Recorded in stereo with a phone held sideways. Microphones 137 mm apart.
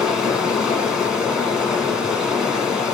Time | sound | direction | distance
0.0 | running water | 5° right (ahead or behind) | 1.3 m